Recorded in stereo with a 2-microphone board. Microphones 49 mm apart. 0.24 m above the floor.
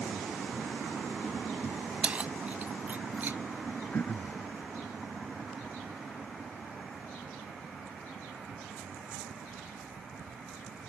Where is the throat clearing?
40° left (ahead or behind).